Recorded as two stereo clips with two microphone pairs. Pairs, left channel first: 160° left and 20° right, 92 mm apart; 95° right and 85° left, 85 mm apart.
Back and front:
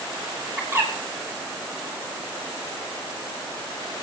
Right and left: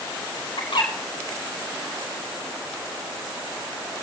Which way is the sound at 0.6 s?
80° right.